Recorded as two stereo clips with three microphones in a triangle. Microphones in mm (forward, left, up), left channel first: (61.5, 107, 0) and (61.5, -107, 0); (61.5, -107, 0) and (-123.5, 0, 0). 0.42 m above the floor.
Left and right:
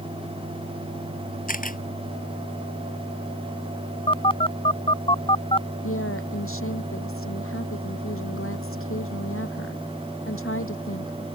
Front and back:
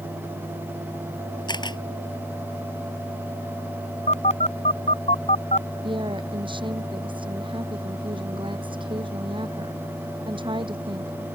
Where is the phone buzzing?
25° left.